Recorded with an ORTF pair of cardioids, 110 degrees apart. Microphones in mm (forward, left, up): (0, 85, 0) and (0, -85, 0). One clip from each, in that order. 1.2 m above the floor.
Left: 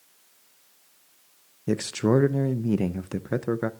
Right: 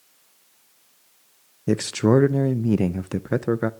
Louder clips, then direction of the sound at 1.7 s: Right 4 dB; 15° right.